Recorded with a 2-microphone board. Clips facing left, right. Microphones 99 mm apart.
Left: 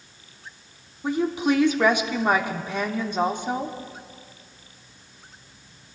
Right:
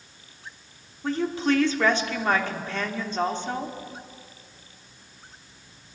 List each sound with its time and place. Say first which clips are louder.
1.0 s a woman speaking: left 2 dB; 15° left (ahead or behind), 0.8 m